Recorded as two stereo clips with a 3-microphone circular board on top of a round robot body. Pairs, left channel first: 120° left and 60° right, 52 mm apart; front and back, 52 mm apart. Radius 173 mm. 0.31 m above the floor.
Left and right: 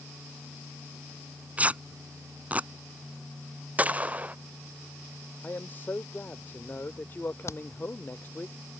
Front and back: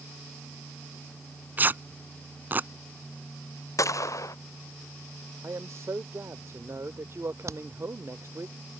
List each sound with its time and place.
1.6 s tearing paper: 125° right
3.8 s a gunshot: straight ahead
5.4 s a man speaking: 165° left
7.5 s hammering: 155° left